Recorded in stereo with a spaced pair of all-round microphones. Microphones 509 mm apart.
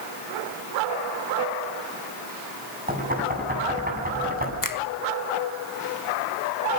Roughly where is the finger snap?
Left.